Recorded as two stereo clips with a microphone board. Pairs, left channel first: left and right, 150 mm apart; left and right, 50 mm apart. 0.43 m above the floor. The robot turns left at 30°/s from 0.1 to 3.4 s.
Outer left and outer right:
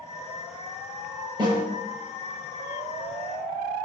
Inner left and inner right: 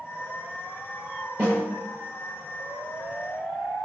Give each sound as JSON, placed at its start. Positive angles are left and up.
{"t": 1.4, "sound": "a snare drum", "side_deg": -30, "distance_m": 5.0}